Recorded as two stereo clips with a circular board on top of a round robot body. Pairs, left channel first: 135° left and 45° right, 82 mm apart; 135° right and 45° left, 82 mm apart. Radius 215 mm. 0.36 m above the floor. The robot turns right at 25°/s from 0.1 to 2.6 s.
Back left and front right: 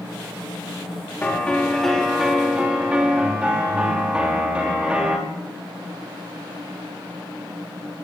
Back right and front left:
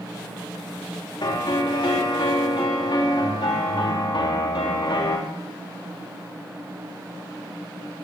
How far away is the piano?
About 5 m.